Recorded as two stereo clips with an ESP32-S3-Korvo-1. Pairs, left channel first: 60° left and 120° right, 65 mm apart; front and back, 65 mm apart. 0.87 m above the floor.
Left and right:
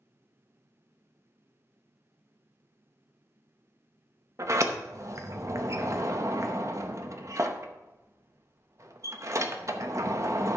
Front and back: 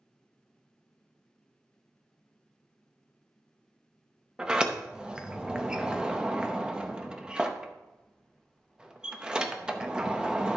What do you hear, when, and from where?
4.4 s a sliding door: 105° right, 0.8 m